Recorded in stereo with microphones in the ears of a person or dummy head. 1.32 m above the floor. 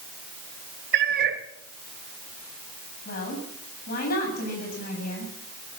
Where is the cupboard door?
I don't hear a cupboard door.